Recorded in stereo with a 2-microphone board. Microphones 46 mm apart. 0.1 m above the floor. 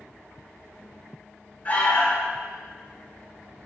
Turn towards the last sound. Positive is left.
turn(degrees=35)  # may be behind; listen again after turning